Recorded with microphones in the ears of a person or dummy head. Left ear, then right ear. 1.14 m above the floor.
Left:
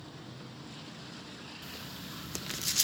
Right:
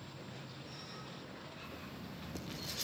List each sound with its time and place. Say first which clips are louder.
1.6 s writing: left 5 dB; 60° left (ahead or behind), 1.6 m